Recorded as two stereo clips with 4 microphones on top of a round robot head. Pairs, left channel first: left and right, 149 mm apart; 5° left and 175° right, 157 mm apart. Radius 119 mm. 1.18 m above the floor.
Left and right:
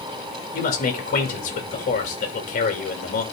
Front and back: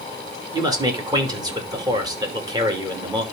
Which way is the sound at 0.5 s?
120° left.